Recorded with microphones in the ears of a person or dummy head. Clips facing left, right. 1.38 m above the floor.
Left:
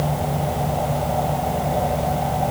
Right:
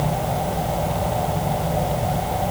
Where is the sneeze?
No sneeze in this recording.